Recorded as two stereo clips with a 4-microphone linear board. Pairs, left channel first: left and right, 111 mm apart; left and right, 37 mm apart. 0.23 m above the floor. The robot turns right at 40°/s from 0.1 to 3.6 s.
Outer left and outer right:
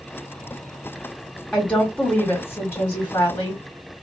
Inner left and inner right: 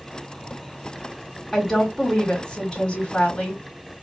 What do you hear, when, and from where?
1.5 s a woman speaking: 10° left (ahead or behind), 1.3 m; by 3.6 s 15° left (ahead or behind), 1.3 m